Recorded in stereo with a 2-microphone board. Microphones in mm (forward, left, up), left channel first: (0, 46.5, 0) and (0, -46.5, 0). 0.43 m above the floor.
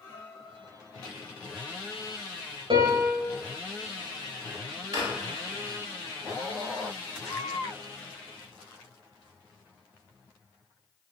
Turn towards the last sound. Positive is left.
turn(degrees=-35)  # may be behind; listen again after turning